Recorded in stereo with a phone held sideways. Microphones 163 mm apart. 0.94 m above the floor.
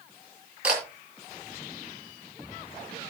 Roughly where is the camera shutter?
Centre.